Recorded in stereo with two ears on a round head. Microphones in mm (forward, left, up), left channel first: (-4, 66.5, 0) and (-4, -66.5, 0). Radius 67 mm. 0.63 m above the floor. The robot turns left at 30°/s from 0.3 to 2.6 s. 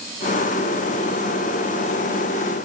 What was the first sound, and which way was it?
Only background noise.